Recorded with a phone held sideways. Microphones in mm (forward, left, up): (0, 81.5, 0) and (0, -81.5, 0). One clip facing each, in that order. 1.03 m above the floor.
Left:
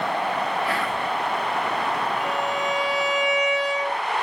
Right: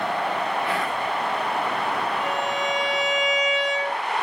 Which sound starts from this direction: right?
A violin, at 2.2 s.